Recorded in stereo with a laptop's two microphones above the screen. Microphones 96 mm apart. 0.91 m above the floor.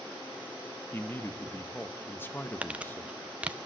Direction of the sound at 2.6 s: 15° right (ahead or behind).